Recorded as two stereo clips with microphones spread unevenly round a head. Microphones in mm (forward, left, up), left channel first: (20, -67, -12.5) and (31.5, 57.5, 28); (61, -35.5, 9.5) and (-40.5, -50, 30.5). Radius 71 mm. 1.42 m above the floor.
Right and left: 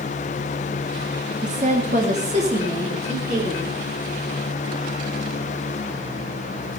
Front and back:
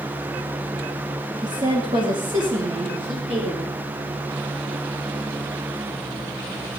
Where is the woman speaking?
125° left, 3 m; by 3.8 s 130° left, 5 m.